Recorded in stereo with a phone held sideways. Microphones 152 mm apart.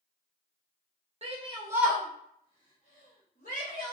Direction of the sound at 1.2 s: 45° right (ahead or behind).